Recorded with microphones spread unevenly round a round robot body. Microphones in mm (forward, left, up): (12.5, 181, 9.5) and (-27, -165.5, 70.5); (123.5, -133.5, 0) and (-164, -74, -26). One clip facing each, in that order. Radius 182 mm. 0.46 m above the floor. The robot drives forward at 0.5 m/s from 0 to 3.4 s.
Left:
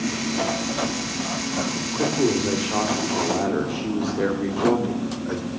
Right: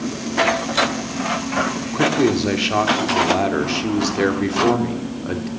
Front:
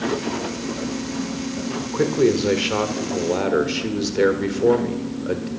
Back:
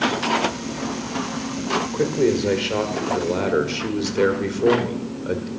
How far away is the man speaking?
About 1.8 m.